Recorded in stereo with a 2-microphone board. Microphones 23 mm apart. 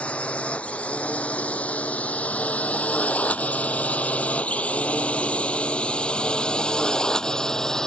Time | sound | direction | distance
0.0 | a drone | 55° left (ahead or behind) | ?